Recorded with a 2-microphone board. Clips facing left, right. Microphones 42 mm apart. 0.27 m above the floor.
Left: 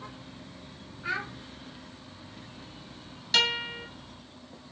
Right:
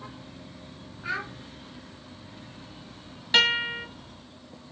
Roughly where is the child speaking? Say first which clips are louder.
Right 1 dB; centre.